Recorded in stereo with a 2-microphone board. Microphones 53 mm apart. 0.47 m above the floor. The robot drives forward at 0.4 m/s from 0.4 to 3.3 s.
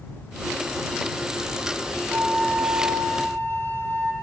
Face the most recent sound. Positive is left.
turn(degrees=-50)  # may be behind; listen again after turning